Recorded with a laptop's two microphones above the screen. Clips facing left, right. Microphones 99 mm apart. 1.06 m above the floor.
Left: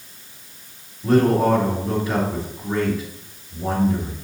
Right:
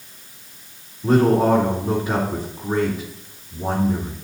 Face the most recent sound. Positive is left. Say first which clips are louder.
# right 1 dB
turn(degrees=-15)  # may be behind; listen again after turning